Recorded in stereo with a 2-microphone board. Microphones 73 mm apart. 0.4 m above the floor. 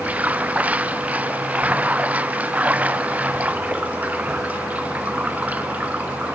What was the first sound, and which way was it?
Running water, 20° right (ahead or behind).